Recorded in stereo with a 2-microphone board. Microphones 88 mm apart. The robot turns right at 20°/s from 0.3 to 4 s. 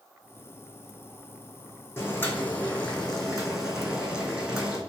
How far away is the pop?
I don't hear a pop.